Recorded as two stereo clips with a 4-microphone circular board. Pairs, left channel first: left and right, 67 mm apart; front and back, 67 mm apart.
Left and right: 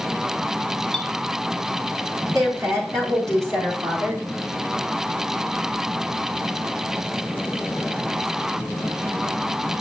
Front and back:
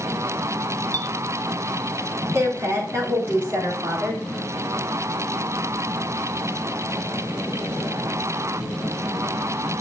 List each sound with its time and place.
0.9 s a clink: straight behind, 1.5 m
2.3 s a woman speaking: 125° right, 4 m